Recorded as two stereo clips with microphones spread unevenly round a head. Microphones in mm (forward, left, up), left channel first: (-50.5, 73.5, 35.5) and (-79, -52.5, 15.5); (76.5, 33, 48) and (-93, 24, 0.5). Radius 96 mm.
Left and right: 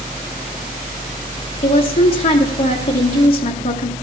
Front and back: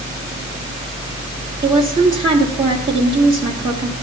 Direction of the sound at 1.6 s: 110° left.